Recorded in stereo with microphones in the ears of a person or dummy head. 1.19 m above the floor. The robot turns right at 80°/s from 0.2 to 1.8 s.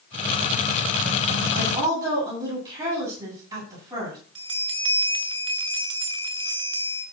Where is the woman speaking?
45° right (ahead or behind), 10 m; by 4.2 s 25° right (ahead or behind), 10 m.